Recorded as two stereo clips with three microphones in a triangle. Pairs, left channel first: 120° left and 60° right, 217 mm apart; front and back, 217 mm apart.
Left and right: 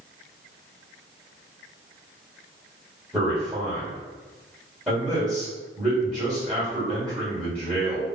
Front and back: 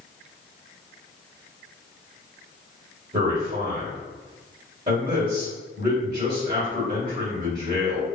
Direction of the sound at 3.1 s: 145° right.